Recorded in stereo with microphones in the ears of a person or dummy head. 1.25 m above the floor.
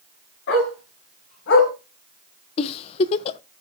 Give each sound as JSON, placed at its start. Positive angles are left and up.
{"t": 0.5, "sound": "a dog barking", "side_deg": 65, "distance_m": 7.0}
{"t": 2.6, "sound": "a giggle", "side_deg": 35, "distance_m": 0.5}